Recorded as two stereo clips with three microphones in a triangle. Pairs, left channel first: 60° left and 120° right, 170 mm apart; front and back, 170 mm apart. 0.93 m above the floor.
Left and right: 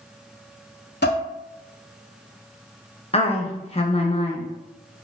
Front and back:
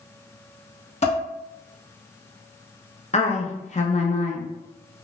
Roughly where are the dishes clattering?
Ahead left.